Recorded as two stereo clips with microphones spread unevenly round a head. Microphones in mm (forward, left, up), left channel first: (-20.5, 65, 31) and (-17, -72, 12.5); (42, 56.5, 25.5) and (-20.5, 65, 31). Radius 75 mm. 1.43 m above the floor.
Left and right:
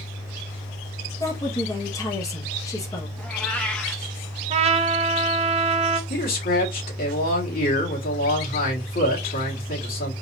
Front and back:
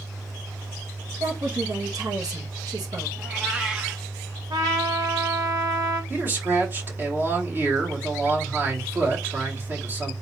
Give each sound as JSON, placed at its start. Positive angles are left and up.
{"t": 1.2, "sound": "a woman speaking", "azimuth_deg": 155, "distance_m": 1.3}
{"t": 3.2, "sound": "a cat meowing", "azimuth_deg": 145, "distance_m": 0.6}
{"t": 4.5, "sound": "a trumpet", "azimuth_deg": -135, "distance_m": 0.6}
{"t": 6.1, "sound": "a man speaking", "azimuth_deg": 115, "distance_m": 1.7}